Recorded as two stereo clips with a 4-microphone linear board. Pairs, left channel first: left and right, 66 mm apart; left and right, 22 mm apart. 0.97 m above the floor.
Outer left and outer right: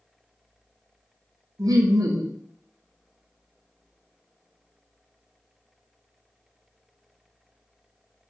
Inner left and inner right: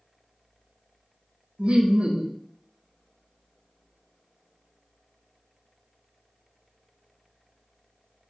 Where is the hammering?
I don't hear hammering.